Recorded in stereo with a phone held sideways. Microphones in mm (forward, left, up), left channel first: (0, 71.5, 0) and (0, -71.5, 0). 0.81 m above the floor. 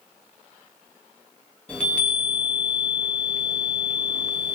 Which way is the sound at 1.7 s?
10° left (ahead or behind).